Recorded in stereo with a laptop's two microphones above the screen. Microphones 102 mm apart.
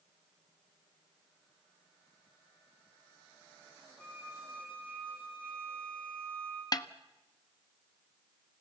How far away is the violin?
About 9 m.